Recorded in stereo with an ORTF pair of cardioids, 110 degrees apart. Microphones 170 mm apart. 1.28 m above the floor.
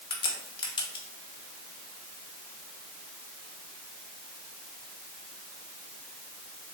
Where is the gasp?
No gasp in this recording.